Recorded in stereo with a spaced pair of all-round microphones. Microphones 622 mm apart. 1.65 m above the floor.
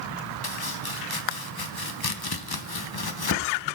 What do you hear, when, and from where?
0.4 s chopping: 40° left (ahead or behind), 0.8 m